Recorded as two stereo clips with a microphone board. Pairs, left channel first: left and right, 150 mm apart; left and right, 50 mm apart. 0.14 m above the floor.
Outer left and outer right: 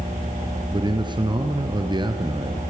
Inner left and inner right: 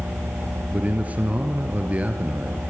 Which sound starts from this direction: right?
A man speaking, at 0.7 s.